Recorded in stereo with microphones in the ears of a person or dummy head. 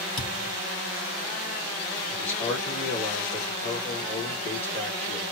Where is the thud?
25° left (ahead or behind), 3 m.